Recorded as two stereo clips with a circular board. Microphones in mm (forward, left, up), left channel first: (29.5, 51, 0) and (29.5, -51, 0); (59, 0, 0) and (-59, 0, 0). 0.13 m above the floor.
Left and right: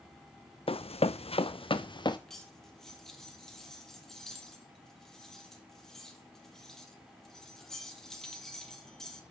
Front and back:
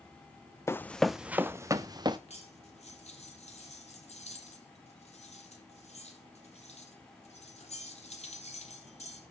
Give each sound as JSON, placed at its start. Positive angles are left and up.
{"t": 0.7, "sound": "running footsteps", "azimuth_deg": 65, "distance_m": 0.6}
{"t": 2.3, "sound": "cutlery clinking", "azimuth_deg": 5, "distance_m": 2.5}